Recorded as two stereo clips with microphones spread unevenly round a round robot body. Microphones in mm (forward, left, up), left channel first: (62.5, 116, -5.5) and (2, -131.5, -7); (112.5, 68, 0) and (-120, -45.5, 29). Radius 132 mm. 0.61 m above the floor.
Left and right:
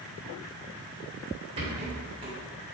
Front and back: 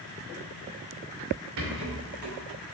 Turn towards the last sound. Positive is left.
turn(degrees=-170)